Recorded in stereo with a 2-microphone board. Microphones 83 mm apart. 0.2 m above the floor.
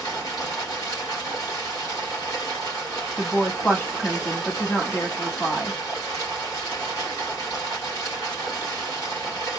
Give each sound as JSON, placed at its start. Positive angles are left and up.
{"t": 0.0, "sound": "running water", "side_deg": 45, "distance_m": 2.5}
{"t": 3.2, "sound": "a woman speaking", "side_deg": 25, "distance_m": 1.1}